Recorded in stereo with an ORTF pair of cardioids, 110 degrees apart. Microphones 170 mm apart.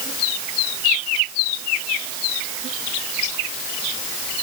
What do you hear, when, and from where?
Only background noise.